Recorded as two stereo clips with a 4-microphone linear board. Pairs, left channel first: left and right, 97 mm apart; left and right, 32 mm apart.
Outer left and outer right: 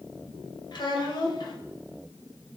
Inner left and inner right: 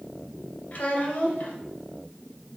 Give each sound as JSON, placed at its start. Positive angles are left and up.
{"t": 0.7, "sound": "a child speaking", "side_deg": 50, "distance_m": 1.8}